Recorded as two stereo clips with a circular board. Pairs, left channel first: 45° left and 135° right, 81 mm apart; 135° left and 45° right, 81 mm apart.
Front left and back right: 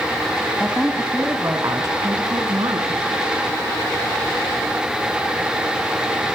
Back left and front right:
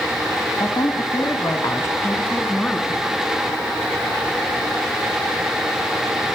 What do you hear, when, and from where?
0.6 s a woman speaking: 135° left, 2.5 m; by 3.0 s 150° right, 3.5 m